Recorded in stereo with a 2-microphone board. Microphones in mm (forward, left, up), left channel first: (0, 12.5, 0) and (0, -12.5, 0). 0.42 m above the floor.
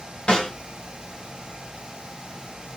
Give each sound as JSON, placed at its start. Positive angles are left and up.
{"t": 0.3, "sound": "a snare drum", "side_deg": 40, "distance_m": 1.3}